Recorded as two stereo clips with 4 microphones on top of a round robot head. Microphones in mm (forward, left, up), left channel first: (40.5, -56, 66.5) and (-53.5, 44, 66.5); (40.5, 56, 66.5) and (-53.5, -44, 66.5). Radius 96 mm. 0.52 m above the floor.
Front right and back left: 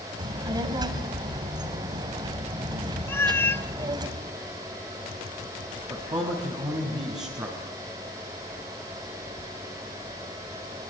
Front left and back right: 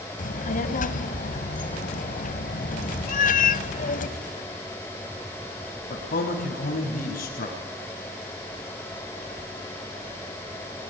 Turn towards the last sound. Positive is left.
turn(degrees=70)